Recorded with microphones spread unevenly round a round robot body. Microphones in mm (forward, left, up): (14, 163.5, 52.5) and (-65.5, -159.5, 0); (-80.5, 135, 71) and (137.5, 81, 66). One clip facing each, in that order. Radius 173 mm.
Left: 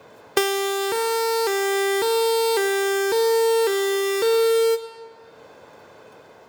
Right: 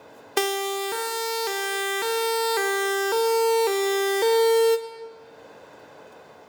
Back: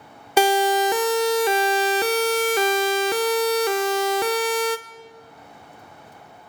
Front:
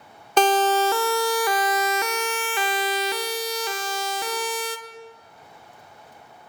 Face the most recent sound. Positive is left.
turn(degrees=160)